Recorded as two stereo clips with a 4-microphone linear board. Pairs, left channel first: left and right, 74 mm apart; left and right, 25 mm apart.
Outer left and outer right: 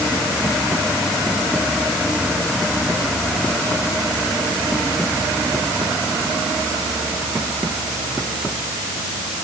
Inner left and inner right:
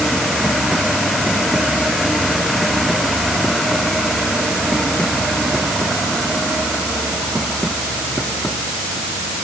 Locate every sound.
Only background noise.